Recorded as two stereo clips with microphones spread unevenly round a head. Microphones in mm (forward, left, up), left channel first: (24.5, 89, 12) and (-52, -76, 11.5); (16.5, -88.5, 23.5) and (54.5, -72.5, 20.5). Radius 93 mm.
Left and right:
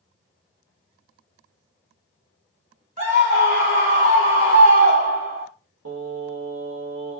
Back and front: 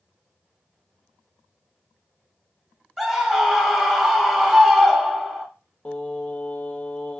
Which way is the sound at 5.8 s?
95° right.